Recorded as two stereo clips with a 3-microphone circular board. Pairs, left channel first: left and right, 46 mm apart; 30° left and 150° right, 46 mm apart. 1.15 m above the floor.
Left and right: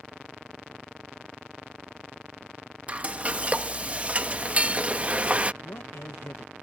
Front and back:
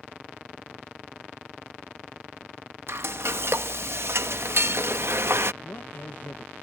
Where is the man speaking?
80° left.